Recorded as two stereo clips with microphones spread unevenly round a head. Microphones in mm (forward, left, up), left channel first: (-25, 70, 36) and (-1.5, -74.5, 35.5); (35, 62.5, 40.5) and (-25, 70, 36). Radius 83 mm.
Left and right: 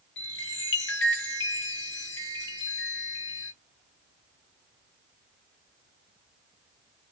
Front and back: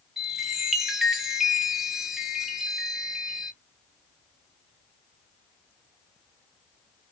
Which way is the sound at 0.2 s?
85° left.